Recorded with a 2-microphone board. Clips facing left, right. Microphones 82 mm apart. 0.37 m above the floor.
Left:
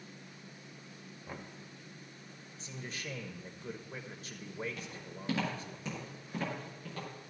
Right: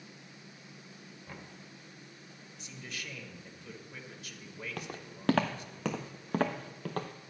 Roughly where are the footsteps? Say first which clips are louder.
Right 2 dB; right.